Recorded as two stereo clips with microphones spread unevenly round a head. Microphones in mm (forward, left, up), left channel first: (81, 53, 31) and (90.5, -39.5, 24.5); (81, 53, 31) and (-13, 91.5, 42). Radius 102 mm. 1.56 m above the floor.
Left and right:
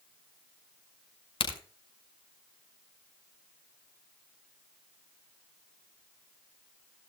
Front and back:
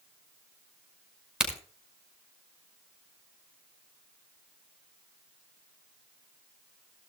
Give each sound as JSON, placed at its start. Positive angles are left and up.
{"t": 1.4, "sound": "a crack", "azimuth_deg": 75, "distance_m": 5.5}